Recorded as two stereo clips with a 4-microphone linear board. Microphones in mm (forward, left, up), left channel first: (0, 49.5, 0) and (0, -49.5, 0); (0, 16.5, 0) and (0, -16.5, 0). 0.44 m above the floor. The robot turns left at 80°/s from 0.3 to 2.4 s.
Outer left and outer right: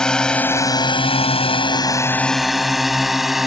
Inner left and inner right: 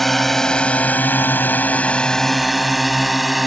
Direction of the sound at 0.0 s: 5° left (ahead or behind).